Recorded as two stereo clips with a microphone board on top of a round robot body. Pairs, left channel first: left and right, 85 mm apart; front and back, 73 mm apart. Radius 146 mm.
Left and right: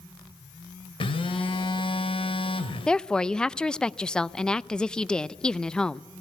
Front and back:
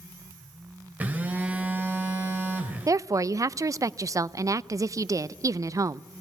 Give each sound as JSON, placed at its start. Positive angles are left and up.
{"t": 1.0, "sound": "a phone buzzing", "azimuth_deg": 110, "distance_m": 1.6}
{"t": 2.9, "sound": "a woman speaking", "azimuth_deg": 165, "distance_m": 0.6}